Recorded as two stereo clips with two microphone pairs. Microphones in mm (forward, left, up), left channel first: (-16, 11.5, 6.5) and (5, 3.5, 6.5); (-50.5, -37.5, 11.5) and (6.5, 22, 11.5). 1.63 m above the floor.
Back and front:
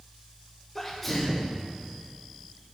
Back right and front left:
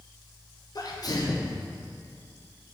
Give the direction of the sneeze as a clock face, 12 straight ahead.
4 o'clock.